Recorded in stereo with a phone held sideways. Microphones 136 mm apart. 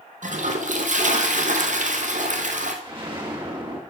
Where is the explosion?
35° right (ahead or behind), 2 m.